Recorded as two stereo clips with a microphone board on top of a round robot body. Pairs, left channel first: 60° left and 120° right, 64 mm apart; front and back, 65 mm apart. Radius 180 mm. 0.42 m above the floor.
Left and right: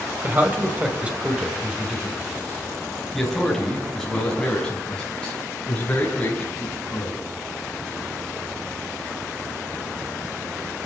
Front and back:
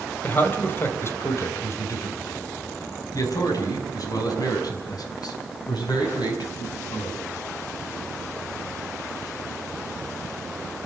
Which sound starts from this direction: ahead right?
A man speaking, at 0.2 s.